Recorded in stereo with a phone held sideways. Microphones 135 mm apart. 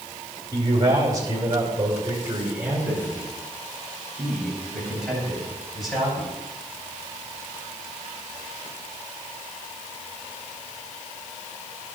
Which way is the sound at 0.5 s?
35° right (ahead or behind).